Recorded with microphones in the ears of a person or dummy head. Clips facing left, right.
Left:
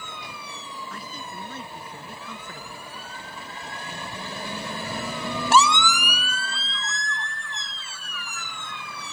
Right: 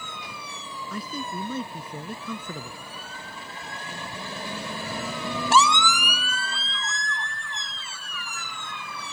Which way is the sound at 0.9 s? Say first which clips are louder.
Right 5 dB; 80° right.